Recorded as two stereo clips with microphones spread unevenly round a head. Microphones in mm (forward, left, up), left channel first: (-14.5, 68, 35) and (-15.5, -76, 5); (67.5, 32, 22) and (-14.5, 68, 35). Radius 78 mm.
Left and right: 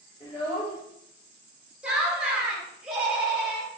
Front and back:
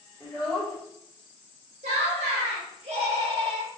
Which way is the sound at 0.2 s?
65° left.